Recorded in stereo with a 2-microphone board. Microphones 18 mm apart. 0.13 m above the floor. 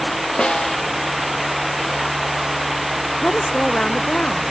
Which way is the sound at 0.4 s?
75° left (ahead or behind).